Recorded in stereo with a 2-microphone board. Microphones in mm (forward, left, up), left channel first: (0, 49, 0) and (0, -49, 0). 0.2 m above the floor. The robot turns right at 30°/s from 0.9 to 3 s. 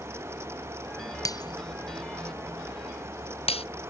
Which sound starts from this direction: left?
Breaking glass, at 1.2 s.